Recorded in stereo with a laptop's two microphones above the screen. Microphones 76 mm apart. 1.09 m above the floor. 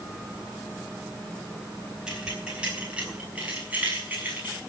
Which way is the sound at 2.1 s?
10° right (ahead or behind).